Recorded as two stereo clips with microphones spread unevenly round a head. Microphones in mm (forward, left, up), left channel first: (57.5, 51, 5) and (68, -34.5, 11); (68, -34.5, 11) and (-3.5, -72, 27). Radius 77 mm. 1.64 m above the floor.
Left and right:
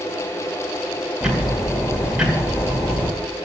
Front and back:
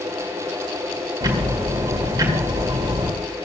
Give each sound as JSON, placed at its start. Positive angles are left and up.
{"t": 1.2, "sound": "ticking", "azimuth_deg": -165, "distance_m": 1.8}